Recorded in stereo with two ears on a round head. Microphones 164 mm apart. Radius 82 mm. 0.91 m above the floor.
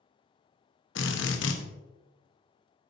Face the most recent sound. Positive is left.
turn(degrees=70)  # may be behind; listen again after turning